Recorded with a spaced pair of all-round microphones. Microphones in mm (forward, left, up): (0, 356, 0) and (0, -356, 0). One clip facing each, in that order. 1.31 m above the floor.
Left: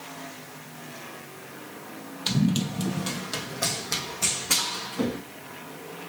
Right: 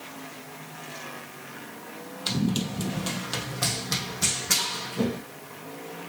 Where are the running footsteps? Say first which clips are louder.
Left 2 dB; 25° left (ahead or behind), 1.5 m; by 5.2 s 60° right (ahead or behind), 3.5 m.